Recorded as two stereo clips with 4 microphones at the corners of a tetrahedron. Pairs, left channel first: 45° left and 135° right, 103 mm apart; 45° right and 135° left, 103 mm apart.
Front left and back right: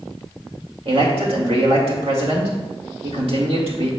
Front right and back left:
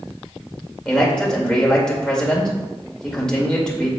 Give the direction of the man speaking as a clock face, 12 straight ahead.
4 o'clock.